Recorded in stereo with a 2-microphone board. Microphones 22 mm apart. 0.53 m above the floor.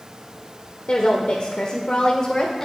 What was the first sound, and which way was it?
A woman speaking, 60° left (ahead or behind).